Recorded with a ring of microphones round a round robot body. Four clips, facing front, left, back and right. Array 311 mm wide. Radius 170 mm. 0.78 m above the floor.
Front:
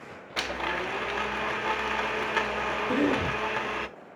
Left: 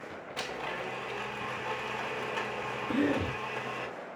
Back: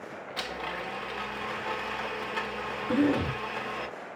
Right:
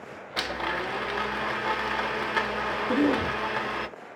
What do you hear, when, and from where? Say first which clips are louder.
0.4 s a blender: right 7 dB, front 5 dB; 50° right, 0.6 m
2.9 s a cough: right 5 dB, back 2 dB; 40° right, 4 m